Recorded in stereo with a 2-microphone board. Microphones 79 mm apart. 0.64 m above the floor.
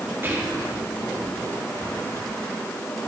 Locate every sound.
0.2 s whispering: 30° right (ahead or behind), 1.6 m